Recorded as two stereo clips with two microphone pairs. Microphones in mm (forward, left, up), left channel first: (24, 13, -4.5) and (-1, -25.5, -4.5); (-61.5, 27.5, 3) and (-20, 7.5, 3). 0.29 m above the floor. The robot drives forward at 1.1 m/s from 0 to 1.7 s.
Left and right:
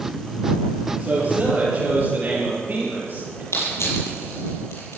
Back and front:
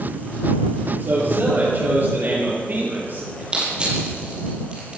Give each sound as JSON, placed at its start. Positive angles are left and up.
{"t": 1.0, "sound": "a man speaking", "azimuth_deg": -70, "distance_m": 7.0}
{"t": 3.5, "sound": "crushing", "azimuth_deg": 45, "distance_m": 6.0}